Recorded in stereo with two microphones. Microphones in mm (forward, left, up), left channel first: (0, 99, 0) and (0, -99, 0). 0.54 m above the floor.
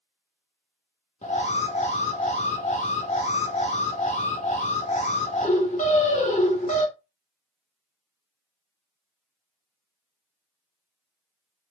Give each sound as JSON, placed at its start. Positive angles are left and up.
{"t": 1.2, "sound": "an alarm", "side_deg": 35, "distance_m": 1.1}